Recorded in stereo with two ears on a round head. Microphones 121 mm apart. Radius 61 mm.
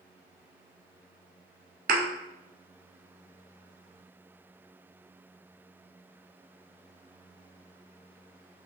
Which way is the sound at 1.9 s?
75° right (ahead or behind).